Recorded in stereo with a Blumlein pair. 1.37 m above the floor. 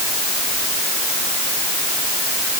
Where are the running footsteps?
I don't hear running footsteps.